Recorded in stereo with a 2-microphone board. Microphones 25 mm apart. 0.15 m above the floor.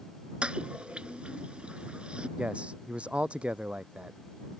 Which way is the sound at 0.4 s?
50° right (ahead or behind).